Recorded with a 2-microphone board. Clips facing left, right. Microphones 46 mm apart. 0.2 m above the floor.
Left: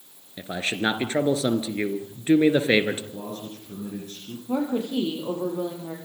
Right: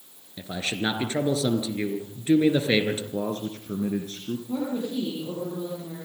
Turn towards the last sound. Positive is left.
turn(degrees=75)  # may be behind; listen again after turning